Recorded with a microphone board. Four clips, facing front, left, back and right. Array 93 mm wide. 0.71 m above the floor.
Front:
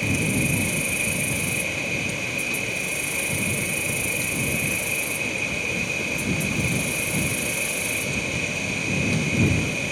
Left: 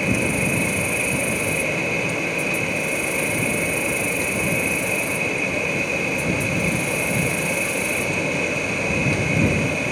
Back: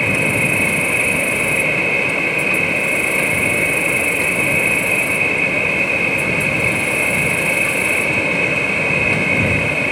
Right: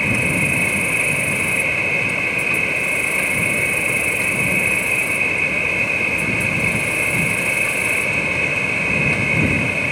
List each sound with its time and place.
0.0 s an insect: 150° right